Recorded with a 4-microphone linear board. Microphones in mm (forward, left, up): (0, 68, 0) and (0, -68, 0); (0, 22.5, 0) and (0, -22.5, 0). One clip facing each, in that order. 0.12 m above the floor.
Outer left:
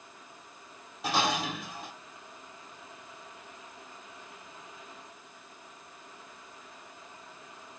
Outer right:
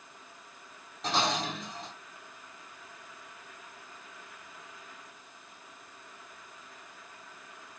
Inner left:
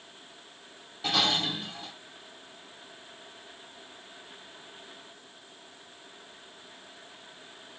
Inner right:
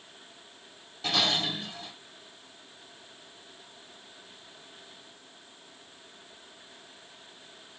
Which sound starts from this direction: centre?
Dishes clattering, at 1.0 s.